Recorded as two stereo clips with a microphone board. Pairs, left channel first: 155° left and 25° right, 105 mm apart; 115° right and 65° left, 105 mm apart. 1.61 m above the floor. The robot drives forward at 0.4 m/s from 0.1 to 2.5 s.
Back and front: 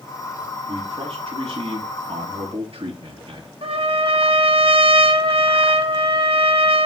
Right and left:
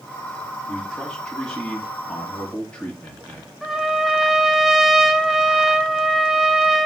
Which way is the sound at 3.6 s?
20° right.